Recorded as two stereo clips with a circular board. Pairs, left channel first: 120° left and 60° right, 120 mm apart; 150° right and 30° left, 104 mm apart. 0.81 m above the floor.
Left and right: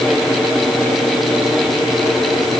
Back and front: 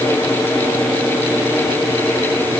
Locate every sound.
Only background noise.